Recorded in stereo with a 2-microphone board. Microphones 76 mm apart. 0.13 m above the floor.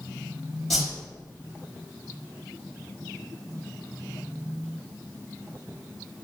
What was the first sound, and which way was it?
A whoosh, centre (ahead or behind).